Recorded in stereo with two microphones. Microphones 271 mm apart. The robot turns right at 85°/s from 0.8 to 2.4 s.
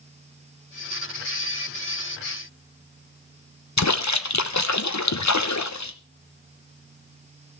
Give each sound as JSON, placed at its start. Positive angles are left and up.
{"t": 3.8, "sound": "a splash", "side_deg": 80, "distance_m": 0.9}